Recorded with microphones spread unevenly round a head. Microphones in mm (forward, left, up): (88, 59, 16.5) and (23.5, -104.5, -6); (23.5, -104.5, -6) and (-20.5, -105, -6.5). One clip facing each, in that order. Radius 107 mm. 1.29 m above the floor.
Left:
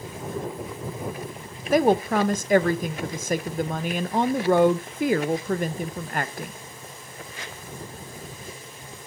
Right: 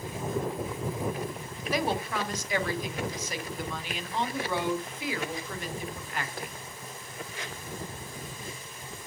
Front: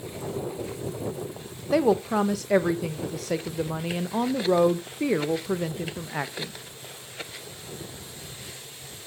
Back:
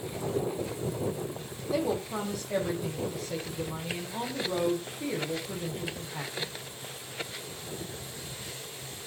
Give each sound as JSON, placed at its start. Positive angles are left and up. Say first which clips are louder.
{"t": 1.7, "sound": "a woman speaking", "louder": "left 10 dB, front 8 dB", "azimuth_deg": 20, "distance_m": 0.7}